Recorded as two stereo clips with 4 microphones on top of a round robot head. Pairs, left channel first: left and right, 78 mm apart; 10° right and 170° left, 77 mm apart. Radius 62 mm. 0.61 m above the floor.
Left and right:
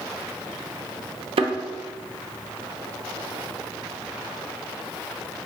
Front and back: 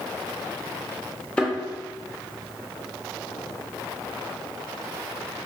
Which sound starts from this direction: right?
A thud, at 1.4 s.